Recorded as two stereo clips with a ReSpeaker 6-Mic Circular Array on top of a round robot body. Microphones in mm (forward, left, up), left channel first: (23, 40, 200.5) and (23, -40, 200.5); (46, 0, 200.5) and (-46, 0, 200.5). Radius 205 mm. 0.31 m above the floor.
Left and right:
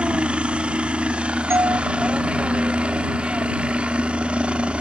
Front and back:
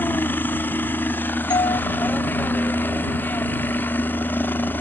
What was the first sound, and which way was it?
A helicopter, 35° right.